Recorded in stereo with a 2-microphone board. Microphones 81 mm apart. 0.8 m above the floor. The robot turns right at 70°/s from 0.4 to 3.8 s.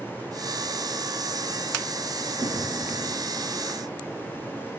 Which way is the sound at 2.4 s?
100° right.